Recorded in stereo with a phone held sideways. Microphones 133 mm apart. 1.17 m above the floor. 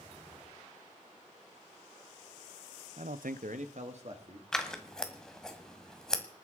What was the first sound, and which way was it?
A man speaking, 55° right (ahead or behind).